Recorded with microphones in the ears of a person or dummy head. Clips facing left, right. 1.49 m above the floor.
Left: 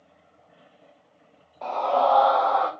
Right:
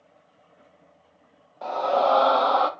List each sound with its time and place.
1.6 s a scream: 10° right (ahead or behind), 1.1 m; by 2.7 s 50° right (ahead or behind), 1.1 m